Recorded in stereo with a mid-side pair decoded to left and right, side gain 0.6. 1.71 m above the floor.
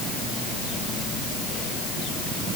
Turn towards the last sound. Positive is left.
No sound to turn to.